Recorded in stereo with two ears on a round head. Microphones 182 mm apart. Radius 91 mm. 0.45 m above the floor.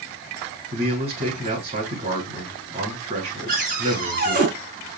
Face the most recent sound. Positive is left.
turn(degrees=-45)  # may be behind; listen again after turning